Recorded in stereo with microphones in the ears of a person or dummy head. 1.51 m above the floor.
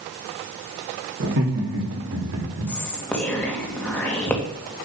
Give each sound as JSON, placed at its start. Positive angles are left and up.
{"t": 1.2, "sound": "laughter", "side_deg": -60, "distance_m": 3.0}
{"t": 2.7, "sound": "whispering", "side_deg": 5, "distance_m": 2.0}